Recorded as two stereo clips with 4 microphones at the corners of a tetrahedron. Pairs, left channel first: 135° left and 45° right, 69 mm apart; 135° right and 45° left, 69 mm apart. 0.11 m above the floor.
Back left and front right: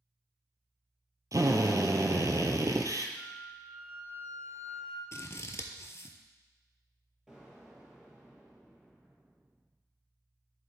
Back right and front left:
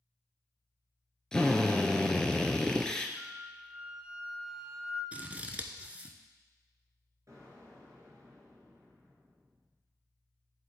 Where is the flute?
110° left, 1.1 m.